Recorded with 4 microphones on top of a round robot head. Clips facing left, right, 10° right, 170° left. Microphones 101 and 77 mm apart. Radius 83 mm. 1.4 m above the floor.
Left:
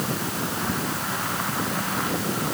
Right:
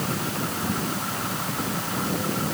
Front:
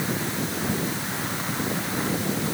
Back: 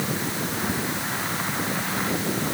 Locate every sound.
Only background noise.